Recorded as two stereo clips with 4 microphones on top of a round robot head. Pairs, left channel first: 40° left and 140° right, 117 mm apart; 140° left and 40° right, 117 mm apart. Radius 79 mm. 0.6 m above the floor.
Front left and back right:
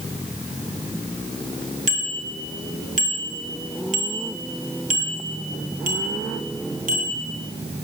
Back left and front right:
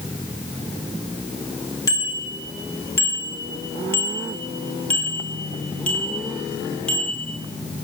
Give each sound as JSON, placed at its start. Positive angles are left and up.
{"t": 1.9, "sound": "a bicycle bell", "azimuth_deg": -155, "distance_m": 8.0}